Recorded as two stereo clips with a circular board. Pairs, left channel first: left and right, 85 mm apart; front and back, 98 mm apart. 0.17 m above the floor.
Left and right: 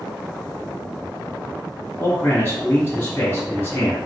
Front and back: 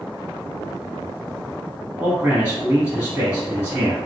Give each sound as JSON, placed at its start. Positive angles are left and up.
{"t": 2.0, "sound": "a man speaking", "azimuth_deg": 120, "distance_m": 1.2}